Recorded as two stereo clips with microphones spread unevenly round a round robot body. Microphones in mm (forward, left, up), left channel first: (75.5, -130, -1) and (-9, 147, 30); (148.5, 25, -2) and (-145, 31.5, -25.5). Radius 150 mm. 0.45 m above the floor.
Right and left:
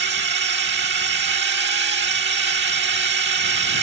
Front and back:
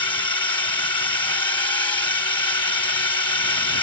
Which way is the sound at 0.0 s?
70° left.